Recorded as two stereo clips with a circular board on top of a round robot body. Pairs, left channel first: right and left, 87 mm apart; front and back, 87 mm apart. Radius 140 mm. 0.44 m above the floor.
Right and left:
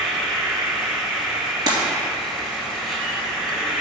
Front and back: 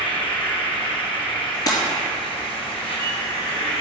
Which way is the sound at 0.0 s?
5° left.